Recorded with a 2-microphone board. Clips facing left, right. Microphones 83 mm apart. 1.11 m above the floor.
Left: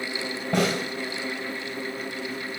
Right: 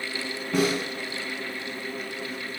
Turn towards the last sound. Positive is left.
turn(degrees=65)  # may be behind; listen again after turning